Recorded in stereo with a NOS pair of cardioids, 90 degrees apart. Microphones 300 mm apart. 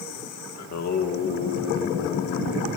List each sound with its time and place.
0.6 s singing: 65° left, 1.4 m